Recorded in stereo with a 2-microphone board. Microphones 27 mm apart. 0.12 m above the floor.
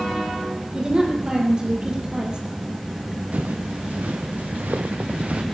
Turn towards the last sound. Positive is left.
turn(degrees=-55)  # may be behind; listen again after turning